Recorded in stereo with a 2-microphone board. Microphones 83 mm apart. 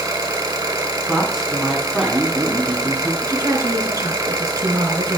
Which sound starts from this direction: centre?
A man speaking, at 1.1 s.